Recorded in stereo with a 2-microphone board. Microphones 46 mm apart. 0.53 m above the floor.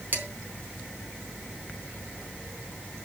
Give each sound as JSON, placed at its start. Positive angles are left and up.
{"t": 0.1, "sound": "dishes clattering", "side_deg": -45, "distance_m": 3.5}